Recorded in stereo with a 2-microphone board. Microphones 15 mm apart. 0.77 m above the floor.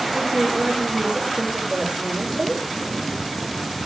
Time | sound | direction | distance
0.1 | a woman speaking | 50° right (ahead or behind) | 3 m